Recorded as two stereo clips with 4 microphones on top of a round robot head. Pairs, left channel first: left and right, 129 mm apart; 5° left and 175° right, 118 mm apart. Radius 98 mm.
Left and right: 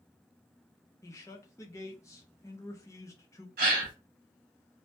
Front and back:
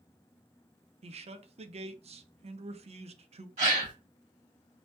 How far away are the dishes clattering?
I don't hear dishes clattering.